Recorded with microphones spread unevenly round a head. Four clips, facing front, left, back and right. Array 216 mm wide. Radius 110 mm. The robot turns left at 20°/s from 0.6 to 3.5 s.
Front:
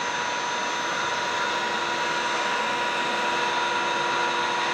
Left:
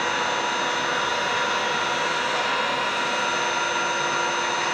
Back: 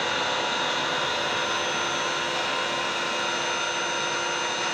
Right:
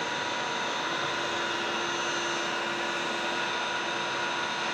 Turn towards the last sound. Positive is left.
turn(degrees=50)